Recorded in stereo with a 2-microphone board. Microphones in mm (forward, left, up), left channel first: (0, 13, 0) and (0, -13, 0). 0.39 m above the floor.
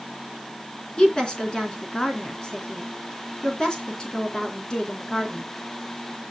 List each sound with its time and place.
1.0 s a woman speaking: 30° left (ahead or behind), 3.5 m